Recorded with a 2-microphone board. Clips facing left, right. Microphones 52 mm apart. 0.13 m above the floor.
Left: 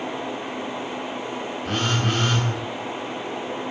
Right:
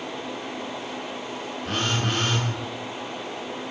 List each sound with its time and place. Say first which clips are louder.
1.6 s a phone buzzing: left 2 dB; centre (ahead or behind), 0.6 m